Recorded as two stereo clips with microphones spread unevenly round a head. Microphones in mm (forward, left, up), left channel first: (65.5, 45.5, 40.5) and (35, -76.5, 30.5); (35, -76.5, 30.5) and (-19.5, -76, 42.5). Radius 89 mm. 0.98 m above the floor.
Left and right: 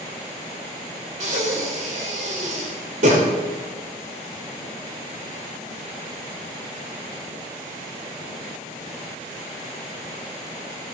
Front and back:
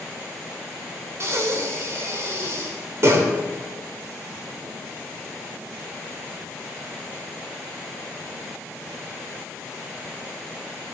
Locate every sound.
1.2 s breathing: 145° right, 3.5 m